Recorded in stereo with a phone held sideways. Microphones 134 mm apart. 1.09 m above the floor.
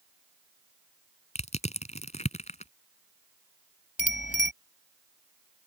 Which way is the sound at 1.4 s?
55° left (ahead or behind).